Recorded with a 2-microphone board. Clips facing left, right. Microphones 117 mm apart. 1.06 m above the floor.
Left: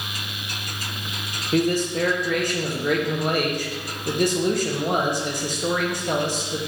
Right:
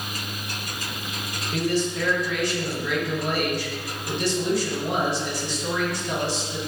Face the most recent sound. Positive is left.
turn(degrees=50)  # may be behind; listen again after turning